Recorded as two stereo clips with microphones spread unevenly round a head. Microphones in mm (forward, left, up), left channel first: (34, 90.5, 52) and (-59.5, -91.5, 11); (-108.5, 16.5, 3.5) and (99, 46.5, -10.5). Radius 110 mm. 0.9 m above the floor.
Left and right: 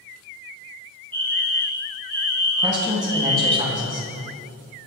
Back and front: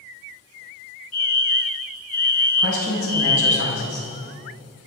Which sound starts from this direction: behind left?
A fire alarm, at 1.1 s.